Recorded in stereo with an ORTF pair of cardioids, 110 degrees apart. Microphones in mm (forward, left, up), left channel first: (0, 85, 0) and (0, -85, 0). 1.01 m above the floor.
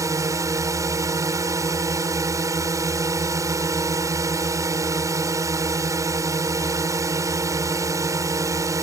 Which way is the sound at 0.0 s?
20° right.